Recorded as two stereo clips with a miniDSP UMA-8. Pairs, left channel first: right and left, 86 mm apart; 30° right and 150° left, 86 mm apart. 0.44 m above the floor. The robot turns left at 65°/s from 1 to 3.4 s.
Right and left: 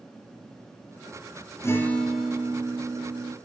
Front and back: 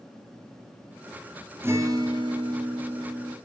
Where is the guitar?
145° right, 3 m; by 3.3 s 100° left, 3 m.